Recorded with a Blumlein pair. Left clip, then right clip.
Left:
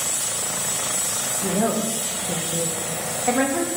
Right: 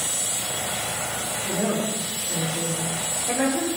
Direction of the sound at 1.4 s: 40° left.